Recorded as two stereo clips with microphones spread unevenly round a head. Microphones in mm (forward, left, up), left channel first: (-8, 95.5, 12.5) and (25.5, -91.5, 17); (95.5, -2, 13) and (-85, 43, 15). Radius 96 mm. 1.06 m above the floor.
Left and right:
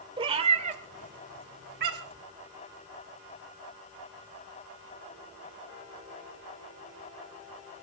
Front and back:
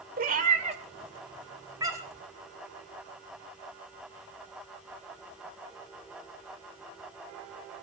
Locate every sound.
0.2 s a cat meowing: 145° right, 2 m; by 2.2 s 115° right, 3.5 m